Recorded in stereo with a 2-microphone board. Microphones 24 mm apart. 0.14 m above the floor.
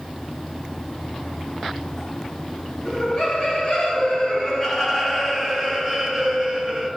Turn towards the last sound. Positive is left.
turn(degrees=-30)  # may be behind; listen again after turning